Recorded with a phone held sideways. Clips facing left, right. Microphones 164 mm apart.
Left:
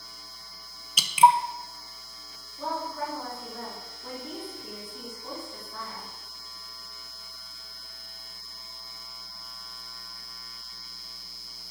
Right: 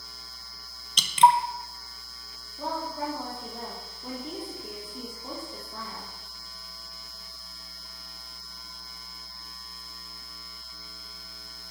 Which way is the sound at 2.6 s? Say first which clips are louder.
Even; 15° right (ahead or behind).